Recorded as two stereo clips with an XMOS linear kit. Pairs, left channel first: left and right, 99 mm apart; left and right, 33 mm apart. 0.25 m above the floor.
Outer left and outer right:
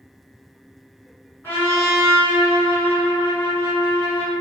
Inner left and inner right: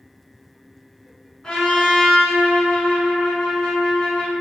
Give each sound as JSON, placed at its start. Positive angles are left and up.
{"t": 1.4, "sound": "a trumpet", "side_deg": 25, "distance_m": 1.2}